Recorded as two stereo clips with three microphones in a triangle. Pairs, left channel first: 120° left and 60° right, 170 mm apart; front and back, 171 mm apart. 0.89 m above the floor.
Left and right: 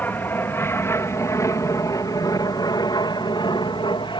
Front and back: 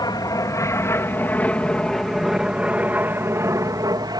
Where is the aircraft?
50° left; by 4.2 s 145° left.